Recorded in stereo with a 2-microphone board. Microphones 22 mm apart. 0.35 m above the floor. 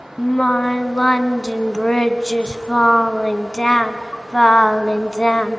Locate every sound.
0.2 s singing: 40° left (ahead or behind), 1.0 m